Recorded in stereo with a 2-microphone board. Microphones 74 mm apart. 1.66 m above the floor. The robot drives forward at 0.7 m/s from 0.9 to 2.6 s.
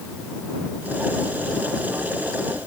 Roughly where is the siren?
I don't hear a siren.